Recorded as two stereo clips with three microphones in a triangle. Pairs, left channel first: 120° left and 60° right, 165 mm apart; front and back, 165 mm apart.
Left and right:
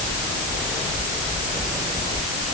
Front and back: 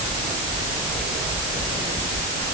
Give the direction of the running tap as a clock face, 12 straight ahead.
No running tap in this recording.